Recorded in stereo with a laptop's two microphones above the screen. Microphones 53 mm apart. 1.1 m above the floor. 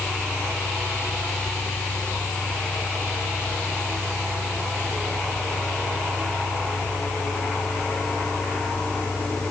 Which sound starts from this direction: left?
A fan, at 0.0 s.